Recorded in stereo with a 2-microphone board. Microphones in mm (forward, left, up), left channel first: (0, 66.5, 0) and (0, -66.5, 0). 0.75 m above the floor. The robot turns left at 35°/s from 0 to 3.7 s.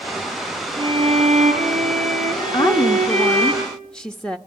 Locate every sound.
0.8 s a violin: 45° right, 4.5 m; by 3.5 s 140° right, 4.5 m
2.5 s a woman speaking: 45° left, 0.9 m; by 4.4 s 5° left, 0.9 m